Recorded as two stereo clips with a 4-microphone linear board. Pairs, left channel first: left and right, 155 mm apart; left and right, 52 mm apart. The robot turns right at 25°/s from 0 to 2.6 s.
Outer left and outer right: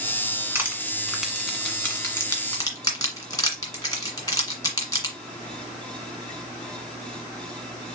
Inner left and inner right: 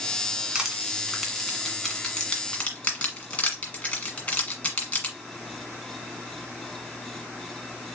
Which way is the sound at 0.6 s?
15° right (ahead or behind).